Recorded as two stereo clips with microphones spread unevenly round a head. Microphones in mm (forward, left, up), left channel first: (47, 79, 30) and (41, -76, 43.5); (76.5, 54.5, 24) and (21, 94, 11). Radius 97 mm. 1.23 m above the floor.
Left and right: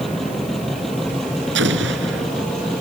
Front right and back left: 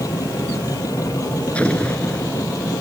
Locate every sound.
0.0 s a machine running: straight ahead
1.6 s an explosion: 115° right